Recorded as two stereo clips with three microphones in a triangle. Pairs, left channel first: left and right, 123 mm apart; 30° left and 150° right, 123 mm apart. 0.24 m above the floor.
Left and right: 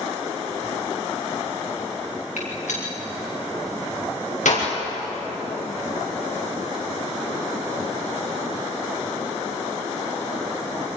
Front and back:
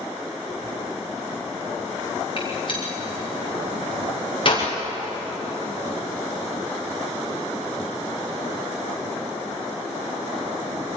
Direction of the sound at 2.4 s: 75° left.